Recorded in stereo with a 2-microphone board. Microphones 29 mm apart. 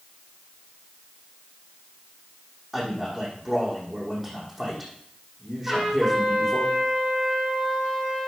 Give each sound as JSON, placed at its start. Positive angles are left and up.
{"t": 2.7, "sound": "a man speaking", "side_deg": -5, "distance_m": 5.5}
{"t": 5.7, "sound": "a trumpet", "side_deg": 0, "distance_m": 5.5}